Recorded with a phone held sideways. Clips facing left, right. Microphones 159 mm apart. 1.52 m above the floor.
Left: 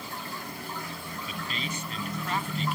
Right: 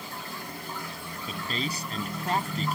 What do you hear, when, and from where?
1.3 s a man speaking: 40° right (ahead or behind); by 2.8 s 45° right (ahead or behind)